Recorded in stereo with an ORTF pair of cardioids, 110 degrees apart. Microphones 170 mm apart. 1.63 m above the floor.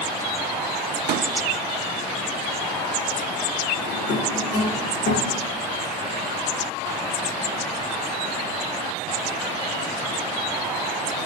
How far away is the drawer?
About 2.5 m.